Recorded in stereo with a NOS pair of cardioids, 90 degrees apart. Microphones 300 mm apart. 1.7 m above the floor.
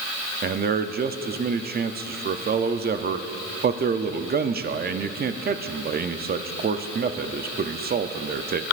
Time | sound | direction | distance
0.4 | a man speaking | 30° right | 0.6 m